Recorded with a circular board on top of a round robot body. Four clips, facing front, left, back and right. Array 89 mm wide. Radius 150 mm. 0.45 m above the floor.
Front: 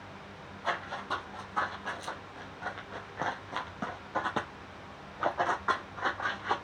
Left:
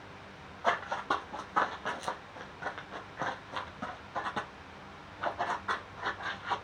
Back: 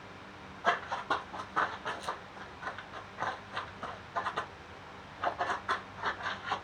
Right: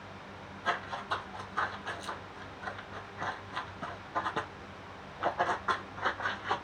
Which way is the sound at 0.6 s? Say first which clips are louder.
Left 4 dB, back 3 dB; 115° left.